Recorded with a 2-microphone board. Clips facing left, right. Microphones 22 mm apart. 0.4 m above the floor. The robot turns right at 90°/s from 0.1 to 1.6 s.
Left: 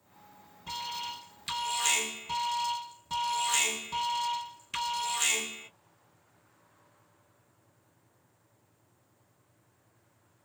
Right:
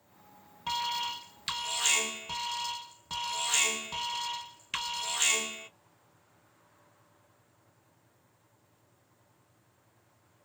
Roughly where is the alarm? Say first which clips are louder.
Right 5 dB; right.